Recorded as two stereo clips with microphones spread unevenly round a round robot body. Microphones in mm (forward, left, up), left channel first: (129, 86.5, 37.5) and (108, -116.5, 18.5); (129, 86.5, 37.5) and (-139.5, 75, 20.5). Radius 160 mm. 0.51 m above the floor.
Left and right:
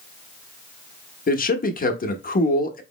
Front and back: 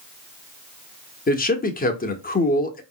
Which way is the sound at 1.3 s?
50° left.